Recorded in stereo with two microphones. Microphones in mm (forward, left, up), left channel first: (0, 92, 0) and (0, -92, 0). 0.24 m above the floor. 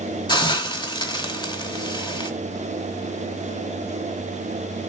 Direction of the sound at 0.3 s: 25° left (ahead or behind).